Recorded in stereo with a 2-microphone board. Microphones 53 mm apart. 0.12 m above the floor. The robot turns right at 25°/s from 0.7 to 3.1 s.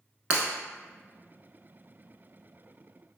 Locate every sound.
0.3 s breaking glass: 25° right (ahead or behind), 0.6 m